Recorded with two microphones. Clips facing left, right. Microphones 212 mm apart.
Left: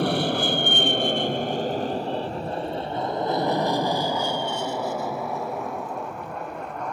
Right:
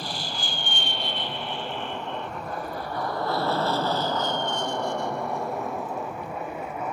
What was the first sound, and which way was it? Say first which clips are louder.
An aircraft: left 13 dB; 65° left (ahead or behind).